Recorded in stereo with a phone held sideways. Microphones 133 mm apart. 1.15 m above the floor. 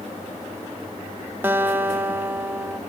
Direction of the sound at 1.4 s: 15° right (ahead or behind).